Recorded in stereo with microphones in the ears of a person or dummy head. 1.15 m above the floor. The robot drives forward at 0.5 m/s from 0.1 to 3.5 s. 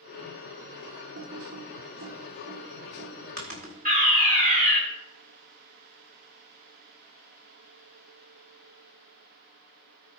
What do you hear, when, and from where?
1.1 s typing on a keyboard: 70° right (ahead or behind), 1.2 m; by 3.8 s 45° right (ahead or behind), 1.6 m
3.9 s a fire alarm: 40° right (ahead or behind), 1.9 m